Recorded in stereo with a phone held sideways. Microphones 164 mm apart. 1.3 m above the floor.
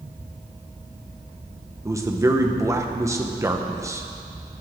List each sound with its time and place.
0.0 s a fan: 50° right (ahead or behind), 3 m
1.9 s a man speaking: 20° right (ahead or behind), 1.1 m